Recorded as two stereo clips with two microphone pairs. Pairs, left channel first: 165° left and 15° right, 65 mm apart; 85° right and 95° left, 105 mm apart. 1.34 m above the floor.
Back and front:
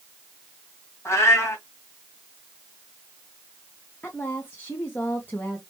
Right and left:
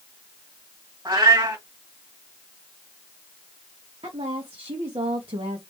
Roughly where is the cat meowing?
Behind left.